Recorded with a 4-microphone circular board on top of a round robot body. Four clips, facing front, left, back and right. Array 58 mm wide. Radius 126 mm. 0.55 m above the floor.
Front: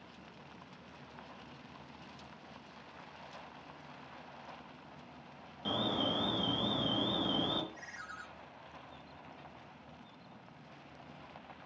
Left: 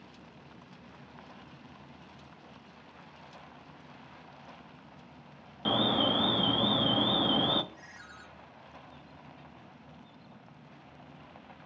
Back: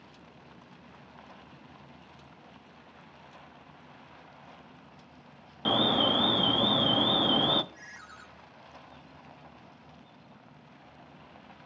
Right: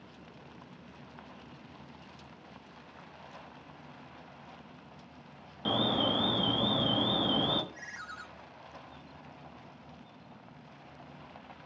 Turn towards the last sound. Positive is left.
turn(degrees=-80)